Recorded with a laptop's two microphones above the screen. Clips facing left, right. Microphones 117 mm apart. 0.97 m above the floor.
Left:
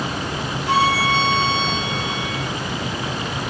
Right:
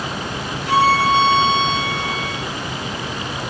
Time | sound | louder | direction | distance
0.7 | a violin | right 3 dB | 55° left (ahead or behind) | 3.5 m